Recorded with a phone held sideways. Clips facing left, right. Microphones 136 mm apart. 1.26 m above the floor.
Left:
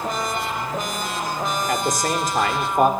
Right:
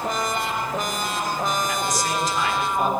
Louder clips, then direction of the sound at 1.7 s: Left 3 dB; 55° left (ahead or behind).